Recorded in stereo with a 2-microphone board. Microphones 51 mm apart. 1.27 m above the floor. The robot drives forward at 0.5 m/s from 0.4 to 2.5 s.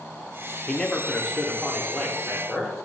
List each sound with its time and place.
0.7 s a man speaking: 15° left (ahead or behind), 0.7 m; by 2.8 s 5° left (ahead or behind), 1.4 m